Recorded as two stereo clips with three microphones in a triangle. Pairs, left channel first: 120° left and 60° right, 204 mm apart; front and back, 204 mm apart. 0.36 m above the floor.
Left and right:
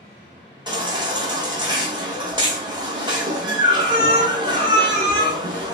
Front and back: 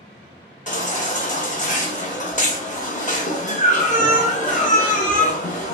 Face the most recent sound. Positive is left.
turn(degrees=-5)